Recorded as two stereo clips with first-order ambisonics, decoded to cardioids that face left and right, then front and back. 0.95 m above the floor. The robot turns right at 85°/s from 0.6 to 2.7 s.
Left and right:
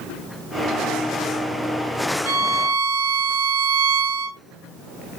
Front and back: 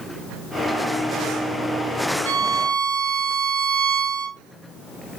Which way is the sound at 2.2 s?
165° right.